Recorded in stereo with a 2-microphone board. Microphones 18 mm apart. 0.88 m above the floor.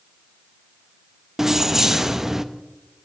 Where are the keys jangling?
25° right (ahead or behind), 0.6 m.